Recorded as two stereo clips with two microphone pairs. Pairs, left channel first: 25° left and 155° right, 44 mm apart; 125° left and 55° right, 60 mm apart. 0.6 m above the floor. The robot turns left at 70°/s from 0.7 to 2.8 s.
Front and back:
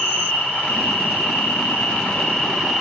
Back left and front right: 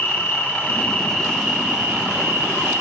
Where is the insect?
80° left, 4 m; by 2.8 s 65° right, 4 m.